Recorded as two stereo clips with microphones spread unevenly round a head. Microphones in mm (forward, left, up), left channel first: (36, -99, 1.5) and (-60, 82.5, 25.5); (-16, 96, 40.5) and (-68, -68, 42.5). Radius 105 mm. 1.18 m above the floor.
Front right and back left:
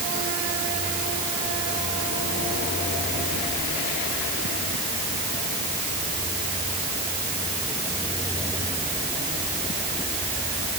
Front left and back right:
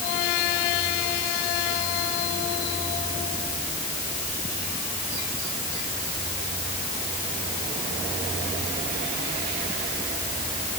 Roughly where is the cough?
I don't hear a cough.